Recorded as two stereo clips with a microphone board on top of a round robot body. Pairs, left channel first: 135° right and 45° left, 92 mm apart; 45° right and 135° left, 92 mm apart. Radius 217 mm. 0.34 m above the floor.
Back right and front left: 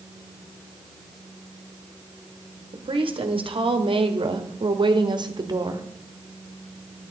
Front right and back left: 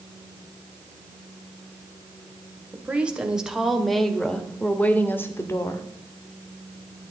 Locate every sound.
2.7 s a woman speaking: 60° left, 2.5 m; by 5.9 s 5° left, 1.9 m